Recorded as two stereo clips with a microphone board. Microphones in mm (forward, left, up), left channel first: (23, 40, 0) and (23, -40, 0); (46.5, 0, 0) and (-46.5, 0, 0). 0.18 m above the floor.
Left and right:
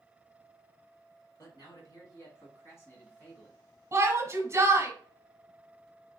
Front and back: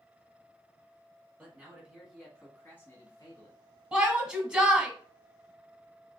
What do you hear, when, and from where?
1.4 s a man speaking: 110° left, 2 m; by 3.6 s 5° left, 1.6 m
3.9 s a shout: 105° right, 1.2 m